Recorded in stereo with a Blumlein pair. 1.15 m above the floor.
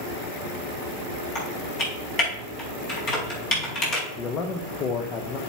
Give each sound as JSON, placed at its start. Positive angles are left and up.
{"t": 1.4, "sound": "typing on a keyboard", "azimuth_deg": 35, "distance_m": 4.5}
{"t": 4.2, "sound": "a man speaking", "azimuth_deg": 25, "distance_m": 1.0}